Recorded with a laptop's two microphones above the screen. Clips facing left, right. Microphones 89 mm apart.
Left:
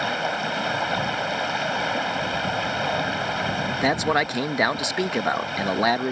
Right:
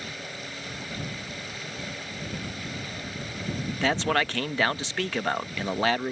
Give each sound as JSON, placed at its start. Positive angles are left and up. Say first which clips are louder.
{"t": 0.0, "sound": "running water", "louder": "left 14 dB", "side_deg": 80}
{"t": 3.8, "sound": "a man speaking", "louder": "left 3 dB", "side_deg": 15}